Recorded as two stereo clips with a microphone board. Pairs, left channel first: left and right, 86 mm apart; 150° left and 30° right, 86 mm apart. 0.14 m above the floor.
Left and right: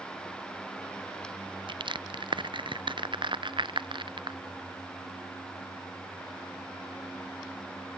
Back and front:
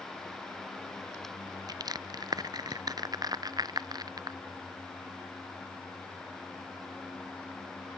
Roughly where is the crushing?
Right.